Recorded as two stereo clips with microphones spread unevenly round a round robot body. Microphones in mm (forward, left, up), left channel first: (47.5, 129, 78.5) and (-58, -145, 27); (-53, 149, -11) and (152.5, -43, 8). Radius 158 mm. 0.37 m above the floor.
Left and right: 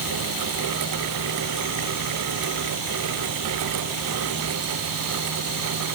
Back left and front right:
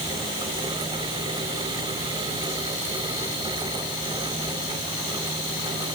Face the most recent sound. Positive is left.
No sound to turn to.